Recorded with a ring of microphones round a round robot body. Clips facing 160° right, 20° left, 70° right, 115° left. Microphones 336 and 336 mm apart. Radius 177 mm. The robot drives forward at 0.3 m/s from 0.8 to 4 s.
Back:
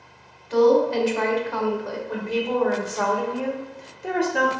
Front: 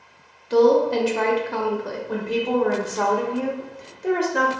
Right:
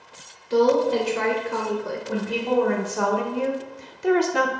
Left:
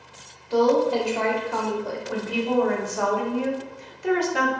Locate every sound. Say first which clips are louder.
0.5 s a woman speaking: front 1 dB, right 1 dB; 5° right, 0.7 m; by 2.0 s 20° right, 0.5 m
2.1 s a woman speaking: front 2 dB, right 1 dB; 20° right, 0.9 m; by 4.5 s 60° right, 0.5 m